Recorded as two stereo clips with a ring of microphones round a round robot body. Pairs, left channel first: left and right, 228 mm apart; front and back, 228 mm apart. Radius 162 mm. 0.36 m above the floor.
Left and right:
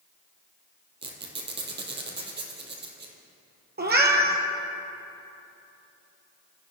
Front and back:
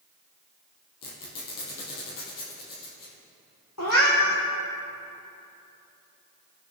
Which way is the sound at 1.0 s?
50° right.